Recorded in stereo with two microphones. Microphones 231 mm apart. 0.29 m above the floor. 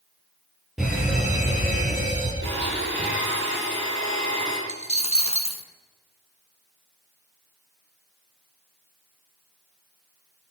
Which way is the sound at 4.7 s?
25° left (ahead or behind).